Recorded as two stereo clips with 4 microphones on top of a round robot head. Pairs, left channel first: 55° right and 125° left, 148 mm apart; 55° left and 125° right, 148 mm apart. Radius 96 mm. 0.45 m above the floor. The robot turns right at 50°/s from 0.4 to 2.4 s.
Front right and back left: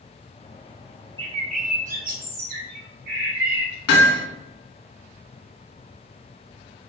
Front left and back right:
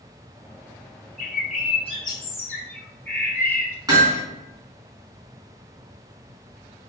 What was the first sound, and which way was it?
A bird, 70° left.